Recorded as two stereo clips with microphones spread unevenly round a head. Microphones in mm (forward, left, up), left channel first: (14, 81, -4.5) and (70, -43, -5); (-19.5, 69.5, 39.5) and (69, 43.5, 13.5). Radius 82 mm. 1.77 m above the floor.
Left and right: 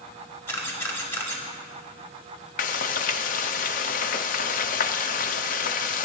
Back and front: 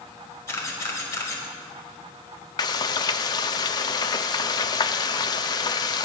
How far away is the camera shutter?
About 1.9 m.